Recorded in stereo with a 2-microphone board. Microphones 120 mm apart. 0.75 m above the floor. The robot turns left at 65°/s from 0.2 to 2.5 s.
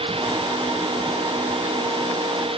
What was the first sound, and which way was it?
Only background noise.